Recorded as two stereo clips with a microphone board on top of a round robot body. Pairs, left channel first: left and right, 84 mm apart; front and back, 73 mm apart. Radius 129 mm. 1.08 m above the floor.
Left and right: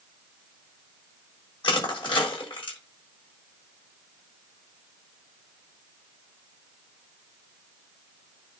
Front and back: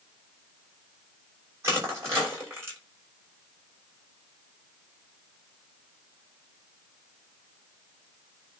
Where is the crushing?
120° left, 7 m.